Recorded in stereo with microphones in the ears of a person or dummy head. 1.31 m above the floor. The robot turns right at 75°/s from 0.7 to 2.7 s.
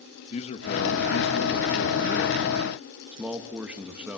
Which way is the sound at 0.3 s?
40° left.